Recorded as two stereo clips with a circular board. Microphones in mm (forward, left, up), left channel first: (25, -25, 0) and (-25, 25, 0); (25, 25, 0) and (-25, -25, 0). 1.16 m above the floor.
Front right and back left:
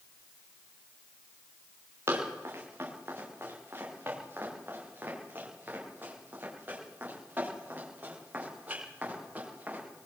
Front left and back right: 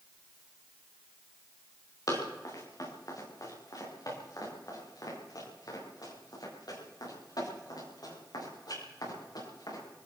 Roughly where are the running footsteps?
Left.